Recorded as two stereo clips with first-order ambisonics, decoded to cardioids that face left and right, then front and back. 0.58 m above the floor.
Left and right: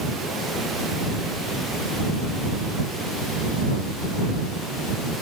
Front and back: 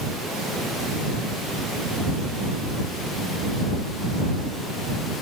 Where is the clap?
I don't hear a clap.